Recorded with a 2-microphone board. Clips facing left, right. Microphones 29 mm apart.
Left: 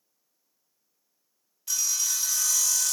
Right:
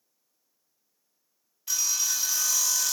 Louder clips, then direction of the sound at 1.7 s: Even; 10° right (ahead or behind).